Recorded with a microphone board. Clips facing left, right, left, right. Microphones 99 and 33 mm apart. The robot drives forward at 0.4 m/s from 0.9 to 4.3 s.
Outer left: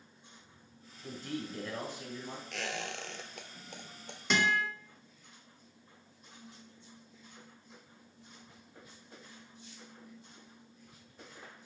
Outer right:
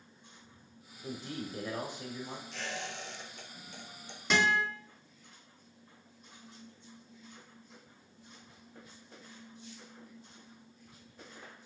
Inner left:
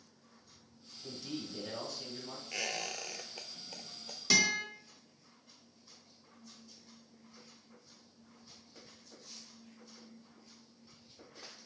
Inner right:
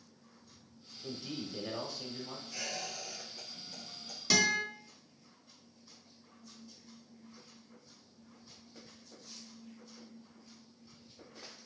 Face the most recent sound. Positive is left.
turn(degrees=0)  # may be behind; listen again after turning